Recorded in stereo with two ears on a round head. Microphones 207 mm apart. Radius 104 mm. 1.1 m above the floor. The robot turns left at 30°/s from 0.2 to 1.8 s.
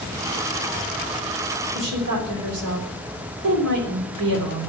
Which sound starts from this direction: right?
A woman speaking, at 1.8 s.